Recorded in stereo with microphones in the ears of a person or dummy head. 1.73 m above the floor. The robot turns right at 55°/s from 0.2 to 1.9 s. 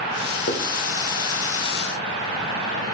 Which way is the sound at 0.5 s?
55° left (ahead or behind).